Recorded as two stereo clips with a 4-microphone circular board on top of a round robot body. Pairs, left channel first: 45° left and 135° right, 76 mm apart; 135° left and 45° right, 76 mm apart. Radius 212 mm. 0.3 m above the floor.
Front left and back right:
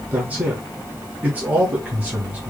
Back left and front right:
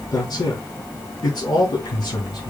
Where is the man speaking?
155° left, 4 m.